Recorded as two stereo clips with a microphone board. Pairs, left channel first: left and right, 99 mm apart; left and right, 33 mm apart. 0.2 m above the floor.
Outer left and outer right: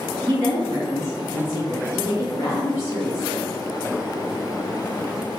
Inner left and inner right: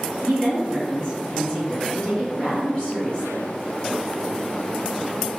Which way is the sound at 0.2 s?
30° left (ahead or behind).